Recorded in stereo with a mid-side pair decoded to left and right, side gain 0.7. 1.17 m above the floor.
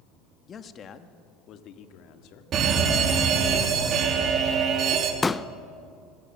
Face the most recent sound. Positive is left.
turn(degrees=15)